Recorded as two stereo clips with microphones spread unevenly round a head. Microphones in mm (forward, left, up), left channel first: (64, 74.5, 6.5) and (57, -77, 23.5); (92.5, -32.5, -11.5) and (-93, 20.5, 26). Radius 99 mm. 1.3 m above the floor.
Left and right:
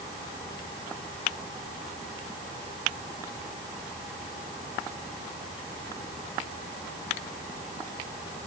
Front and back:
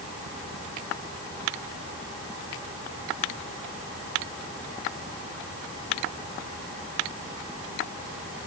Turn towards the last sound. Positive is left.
No sound to turn to.